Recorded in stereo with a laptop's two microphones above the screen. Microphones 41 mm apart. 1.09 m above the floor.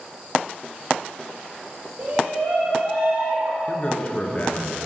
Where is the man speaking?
30° left (ahead or behind), 0.9 m.